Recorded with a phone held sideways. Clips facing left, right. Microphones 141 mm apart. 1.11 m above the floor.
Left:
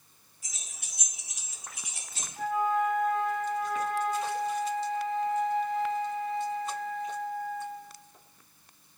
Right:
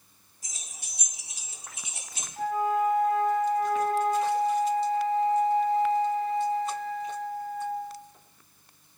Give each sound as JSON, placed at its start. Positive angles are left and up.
{"t": 0.4, "sound": "keys jangling", "side_deg": -35, "distance_m": 1.6}
{"t": 2.4, "sound": "a flute", "side_deg": -40, "distance_m": 0.6}